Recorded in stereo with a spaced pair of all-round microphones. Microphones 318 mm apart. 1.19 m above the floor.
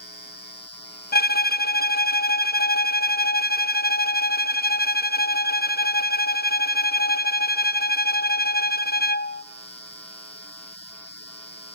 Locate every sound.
1.1 s a violin: 30° left (ahead or behind), 0.5 m